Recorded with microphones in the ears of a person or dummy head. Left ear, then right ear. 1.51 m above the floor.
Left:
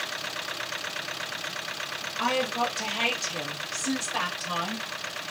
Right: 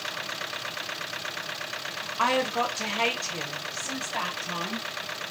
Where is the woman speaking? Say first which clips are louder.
Right 2 dB; 40° right (ahead or behind), 0.8 m; by 4.9 s 55° left (ahead or behind), 1.1 m.